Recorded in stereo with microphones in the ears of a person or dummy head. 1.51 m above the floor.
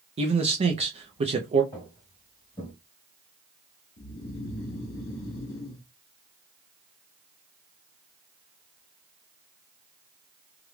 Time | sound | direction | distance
0.2 | a man speaking | 30° right (ahead or behind) | 0.6 m
1.7 | footsteps | 15° left (ahead or behind) | 2.5 m
4.0 | snoring | 55° left (ahead or behind) | 1.0 m